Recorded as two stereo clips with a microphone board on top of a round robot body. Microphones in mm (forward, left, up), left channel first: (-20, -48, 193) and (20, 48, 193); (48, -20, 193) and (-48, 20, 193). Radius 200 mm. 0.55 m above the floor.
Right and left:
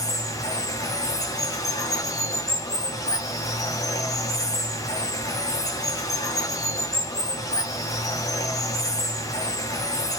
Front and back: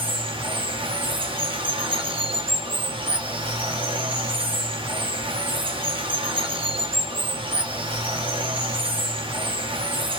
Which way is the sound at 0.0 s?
170° right.